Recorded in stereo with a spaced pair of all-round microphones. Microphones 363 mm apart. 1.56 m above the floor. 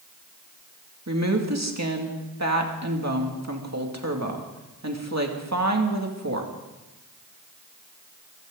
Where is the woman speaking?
45° right (ahead or behind), 2.5 m.